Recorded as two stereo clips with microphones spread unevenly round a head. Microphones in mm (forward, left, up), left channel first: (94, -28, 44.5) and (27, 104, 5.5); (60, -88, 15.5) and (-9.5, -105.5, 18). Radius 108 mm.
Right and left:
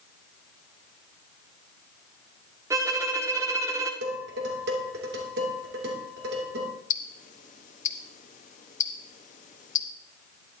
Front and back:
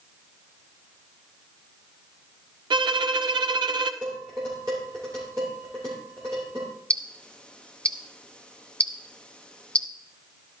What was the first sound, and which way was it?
A violin, 175° right.